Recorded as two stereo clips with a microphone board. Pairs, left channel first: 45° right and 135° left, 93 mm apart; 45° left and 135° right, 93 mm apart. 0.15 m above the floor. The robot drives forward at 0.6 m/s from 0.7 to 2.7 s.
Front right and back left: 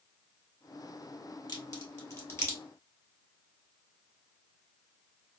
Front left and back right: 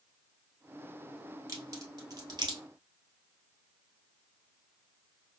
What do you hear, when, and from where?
1.5 s a crack: 90° right, 1.4 m; by 2.6 s 115° right, 1.5 m